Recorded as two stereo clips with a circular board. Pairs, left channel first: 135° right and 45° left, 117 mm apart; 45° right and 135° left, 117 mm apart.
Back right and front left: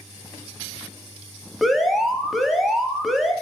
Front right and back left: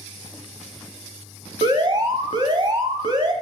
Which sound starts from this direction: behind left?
An alarm, at 1.6 s.